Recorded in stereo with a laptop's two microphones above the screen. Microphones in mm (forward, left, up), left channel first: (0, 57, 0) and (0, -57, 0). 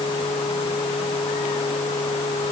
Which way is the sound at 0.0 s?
60° left (ahead or behind).